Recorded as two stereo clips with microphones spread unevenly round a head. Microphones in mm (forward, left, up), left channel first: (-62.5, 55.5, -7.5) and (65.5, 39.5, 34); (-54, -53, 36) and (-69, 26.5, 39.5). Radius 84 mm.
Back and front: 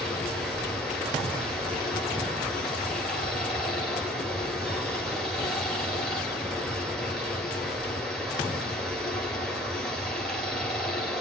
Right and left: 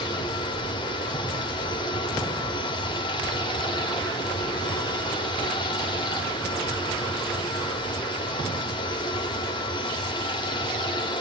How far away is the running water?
About 1.0 m.